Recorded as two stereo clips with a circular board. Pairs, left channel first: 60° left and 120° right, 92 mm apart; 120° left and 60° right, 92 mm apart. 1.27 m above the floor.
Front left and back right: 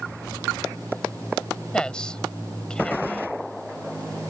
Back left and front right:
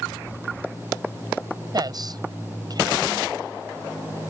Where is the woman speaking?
20° right.